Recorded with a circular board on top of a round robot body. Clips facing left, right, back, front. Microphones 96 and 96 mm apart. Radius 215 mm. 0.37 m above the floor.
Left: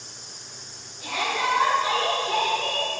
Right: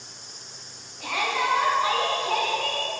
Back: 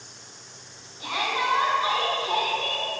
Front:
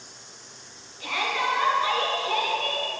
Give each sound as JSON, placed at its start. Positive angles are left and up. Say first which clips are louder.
{"t": 1.0, "sound": "a shout", "louder": "even, even", "azimuth_deg": -115, "distance_m": 6.5}